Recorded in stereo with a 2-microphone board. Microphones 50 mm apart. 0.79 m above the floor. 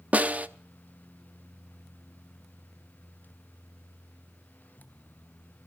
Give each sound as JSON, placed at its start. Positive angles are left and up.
{"t": 0.1, "sound": "a snare drum", "side_deg": -30, "distance_m": 0.7}